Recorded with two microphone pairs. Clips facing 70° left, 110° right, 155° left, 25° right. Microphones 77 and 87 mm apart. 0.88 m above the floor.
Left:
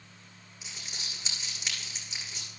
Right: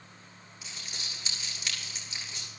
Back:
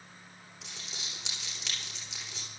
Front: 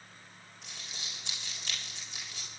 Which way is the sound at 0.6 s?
140° left.